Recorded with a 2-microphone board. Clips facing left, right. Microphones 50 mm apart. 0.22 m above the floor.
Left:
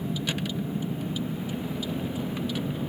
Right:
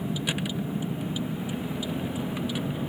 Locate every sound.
0.0 s a vehicle: 15° right (ahead or behind)